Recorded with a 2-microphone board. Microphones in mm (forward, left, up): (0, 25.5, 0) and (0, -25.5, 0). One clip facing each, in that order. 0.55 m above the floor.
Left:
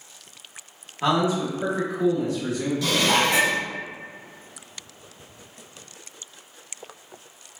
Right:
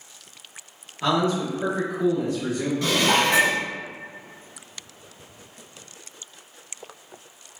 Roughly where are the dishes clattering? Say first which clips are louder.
Right 1 dB; right.